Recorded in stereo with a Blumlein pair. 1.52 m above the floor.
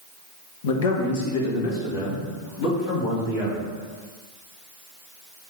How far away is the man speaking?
About 1.0 m.